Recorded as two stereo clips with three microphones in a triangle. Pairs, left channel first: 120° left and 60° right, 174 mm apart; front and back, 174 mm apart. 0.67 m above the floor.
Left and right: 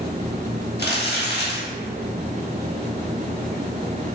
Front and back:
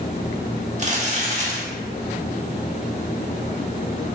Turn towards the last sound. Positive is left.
turn(degrees=130)